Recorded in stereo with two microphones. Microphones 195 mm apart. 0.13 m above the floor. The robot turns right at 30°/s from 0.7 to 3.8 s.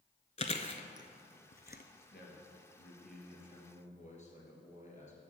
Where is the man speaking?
80° left, 3 m; by 5.2 s 135° left, 3 m.